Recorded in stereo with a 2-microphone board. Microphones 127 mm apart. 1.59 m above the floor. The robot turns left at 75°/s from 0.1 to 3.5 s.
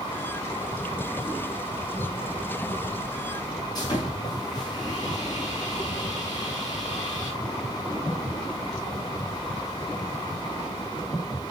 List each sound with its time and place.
3.8 s sawing: 35° left (ahead or behind), 6.5 m